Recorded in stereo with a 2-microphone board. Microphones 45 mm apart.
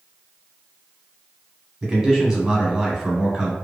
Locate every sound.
1.8 s a man speaking: 15° right (ahead or behind), 1.1 m